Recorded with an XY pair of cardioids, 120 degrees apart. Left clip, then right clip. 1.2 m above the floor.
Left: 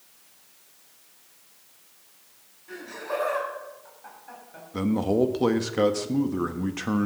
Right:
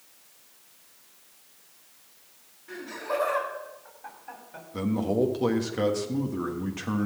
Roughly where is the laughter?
Ahead.